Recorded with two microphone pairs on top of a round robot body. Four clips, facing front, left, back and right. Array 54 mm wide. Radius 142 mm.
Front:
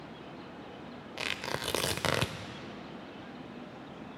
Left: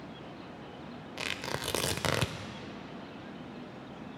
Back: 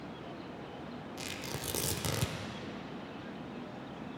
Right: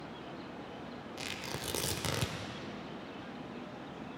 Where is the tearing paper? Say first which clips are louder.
Left 6 dB, front 8 dB; 35° left, 0.6 m.